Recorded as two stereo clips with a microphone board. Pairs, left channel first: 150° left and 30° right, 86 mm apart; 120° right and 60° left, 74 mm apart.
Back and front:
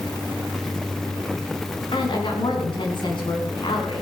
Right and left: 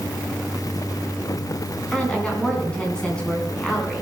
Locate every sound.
1.9 s a woman speaking: 165° left, 4 m